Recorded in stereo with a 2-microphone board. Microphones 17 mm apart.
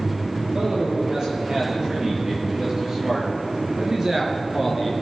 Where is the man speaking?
40° right (ahead or behind), 7 m; by 4.9 s 10° right (ahead or behind), 3.5 m.